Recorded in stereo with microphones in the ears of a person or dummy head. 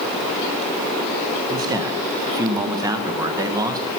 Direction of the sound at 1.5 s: 20° right (ahead or behind).